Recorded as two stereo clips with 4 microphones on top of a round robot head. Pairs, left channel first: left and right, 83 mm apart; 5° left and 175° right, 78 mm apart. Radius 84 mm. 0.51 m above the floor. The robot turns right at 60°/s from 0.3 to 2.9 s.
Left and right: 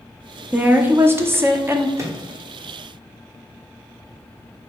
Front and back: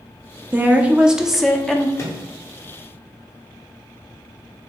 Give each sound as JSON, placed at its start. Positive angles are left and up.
{"t": 0.5, "sound": "a woman speaking", "azimuth_deg": -140, "distance_m": 0.7}
{"t": 2.0, "sound": "a microwave", "azimuth_deg": -45, "distance_m": 1.2}